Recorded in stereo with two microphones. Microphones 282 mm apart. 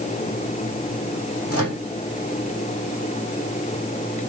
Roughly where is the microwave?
Left.